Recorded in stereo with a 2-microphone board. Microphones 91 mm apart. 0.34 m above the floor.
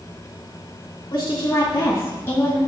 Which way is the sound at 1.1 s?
45° left (ahead or behind).